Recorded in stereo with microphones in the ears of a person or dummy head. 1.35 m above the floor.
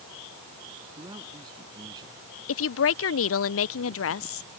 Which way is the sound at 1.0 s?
25° right (ahead or behind).